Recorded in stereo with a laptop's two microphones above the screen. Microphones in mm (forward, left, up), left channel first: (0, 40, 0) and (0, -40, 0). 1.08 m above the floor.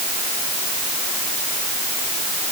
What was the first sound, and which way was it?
Only background noise.